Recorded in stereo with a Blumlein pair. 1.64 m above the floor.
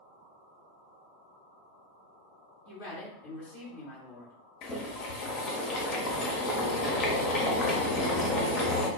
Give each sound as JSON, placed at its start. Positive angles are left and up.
{"t": 2.6, "sound": "a woman speaking", "azimuth_deg": 60, "distance_m": 1.2}
{"t": 4.6, "sound": "boiling", "azimuth_deg": 30, "distance_m": 0.6}